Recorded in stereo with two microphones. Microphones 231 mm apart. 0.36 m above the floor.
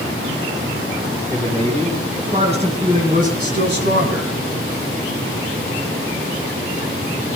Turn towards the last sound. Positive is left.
turn(degrees=-55)  # may be behind; listen again after turning